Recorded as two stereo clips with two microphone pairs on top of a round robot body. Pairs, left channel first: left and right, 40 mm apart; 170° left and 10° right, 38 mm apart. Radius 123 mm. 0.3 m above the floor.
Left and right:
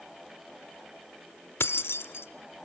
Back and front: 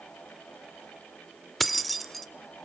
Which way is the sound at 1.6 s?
80° left.